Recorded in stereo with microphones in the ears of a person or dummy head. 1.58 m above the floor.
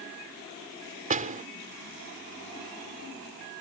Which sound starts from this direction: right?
A door slam, at 1.1 s.